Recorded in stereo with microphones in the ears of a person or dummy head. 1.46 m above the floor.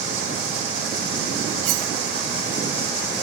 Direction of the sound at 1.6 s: 70° right (ahead or behind).